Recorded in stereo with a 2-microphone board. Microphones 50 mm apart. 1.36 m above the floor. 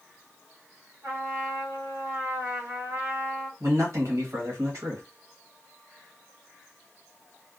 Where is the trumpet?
55° right (ahead or behind), 1.4 m.